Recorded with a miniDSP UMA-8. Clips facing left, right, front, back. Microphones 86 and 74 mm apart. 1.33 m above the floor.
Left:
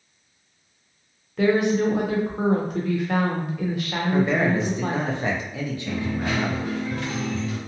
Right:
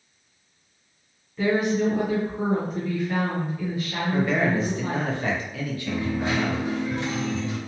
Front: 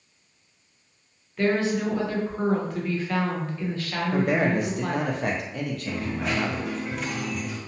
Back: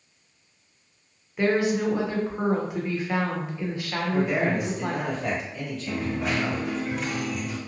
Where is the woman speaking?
105° left, 0.7 m.